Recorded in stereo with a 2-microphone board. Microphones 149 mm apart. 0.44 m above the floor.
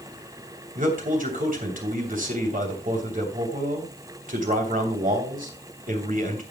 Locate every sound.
0.8 s a man speaking: 60° right (ahead or behind), 2.5 m